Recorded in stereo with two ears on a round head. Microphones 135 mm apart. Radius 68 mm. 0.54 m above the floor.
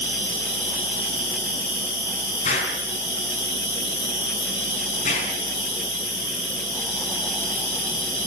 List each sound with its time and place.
0.0 s an insect: 30° left (ahead or behind), 8.5 m
2.5 s an explosion: 50° left (ahead or behind), 5 m